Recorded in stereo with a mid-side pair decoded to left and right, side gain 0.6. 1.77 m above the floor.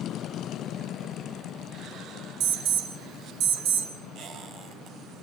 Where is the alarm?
65° right, 5.5 m.